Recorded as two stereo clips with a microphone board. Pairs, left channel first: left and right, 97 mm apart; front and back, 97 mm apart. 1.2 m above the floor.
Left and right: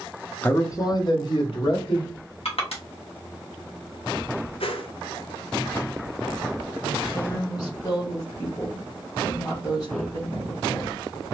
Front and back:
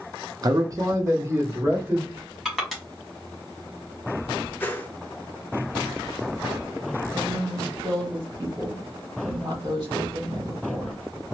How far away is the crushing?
About 1.7 m.